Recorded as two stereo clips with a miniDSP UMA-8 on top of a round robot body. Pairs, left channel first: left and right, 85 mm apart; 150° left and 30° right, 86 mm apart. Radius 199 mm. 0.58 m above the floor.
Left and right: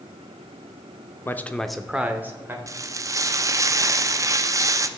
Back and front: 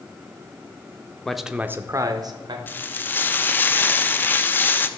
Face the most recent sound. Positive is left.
turn(degrees=-145)